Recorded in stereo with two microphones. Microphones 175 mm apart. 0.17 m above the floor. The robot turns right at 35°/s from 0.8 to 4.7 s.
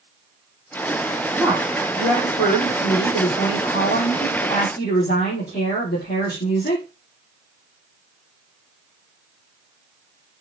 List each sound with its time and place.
1.4 s a woman speaking: 10° right, 7.5 m; by 6.8 s 105° left, 7.5 m